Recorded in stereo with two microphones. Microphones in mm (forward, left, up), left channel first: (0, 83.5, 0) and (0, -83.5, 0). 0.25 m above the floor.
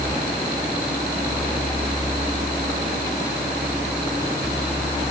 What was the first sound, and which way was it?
Only background noise.